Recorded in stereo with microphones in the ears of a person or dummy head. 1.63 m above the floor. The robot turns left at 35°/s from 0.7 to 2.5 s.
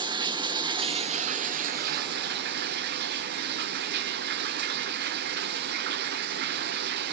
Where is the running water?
35° right, 1.0 m; by 7.1 s 100° right, 1.0 m.